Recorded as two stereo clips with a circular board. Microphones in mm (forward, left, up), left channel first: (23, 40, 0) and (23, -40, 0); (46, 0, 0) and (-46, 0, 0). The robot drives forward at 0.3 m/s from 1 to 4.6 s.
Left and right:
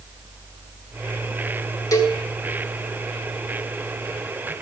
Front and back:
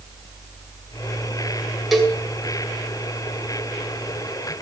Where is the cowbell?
90° left, 2 m; by 2.2 s 95° left, 2 m.